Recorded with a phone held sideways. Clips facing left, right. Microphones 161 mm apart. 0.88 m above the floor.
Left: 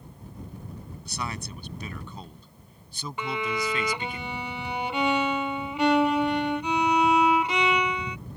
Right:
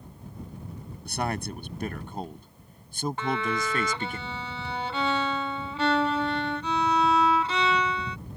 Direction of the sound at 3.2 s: 15° left (ahead or behind).